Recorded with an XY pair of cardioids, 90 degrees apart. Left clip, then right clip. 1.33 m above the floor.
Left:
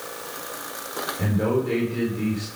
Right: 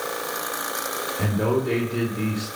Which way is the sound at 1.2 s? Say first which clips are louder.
Even; 10° right.